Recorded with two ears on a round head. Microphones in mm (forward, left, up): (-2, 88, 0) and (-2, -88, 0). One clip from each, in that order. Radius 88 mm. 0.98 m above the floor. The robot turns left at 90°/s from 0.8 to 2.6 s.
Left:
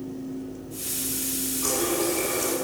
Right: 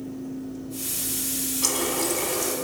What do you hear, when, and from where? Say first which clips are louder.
1.6 s a running tap: even; 85° right, 1.4 m; by 2.5 s 170° right, 1.4 m